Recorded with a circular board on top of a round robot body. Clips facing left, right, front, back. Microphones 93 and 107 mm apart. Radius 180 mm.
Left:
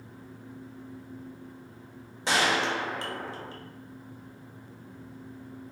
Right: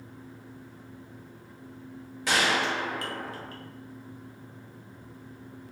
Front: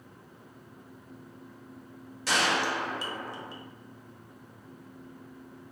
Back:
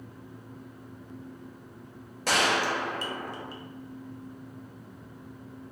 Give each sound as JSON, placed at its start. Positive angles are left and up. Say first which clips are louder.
{"t": 2.3, "sound": "a gunshot", "louder": "even, back 2 dB", "azimuth_deg": 150, "distance_m": 0.9}